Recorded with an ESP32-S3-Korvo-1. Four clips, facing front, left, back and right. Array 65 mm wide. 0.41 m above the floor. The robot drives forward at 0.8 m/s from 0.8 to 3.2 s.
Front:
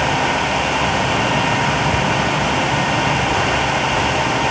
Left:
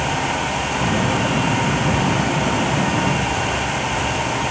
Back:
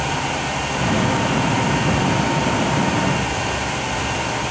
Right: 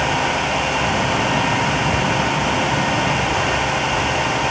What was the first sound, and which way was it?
Only background noise.